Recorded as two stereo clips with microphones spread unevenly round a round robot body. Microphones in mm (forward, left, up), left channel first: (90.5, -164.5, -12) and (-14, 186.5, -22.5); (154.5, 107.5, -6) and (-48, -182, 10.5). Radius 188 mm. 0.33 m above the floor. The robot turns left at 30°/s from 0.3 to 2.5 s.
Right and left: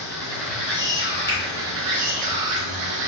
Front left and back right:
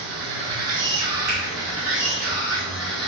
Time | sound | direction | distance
0.0 | an insect | 155° right | 1.2 m
1.3 | a finger snap | straight behind | 1.0 m